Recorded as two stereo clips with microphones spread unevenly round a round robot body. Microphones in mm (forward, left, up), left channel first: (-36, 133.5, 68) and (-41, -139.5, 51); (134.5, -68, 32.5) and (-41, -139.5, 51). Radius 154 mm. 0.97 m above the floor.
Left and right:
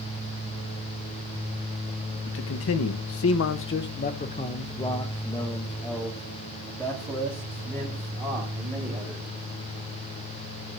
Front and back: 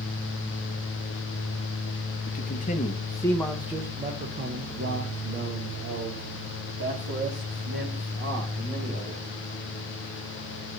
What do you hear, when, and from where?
2.3 s a man speaking: 50° left, 1.0 m; by 9.3 s 170° right, 3.5 m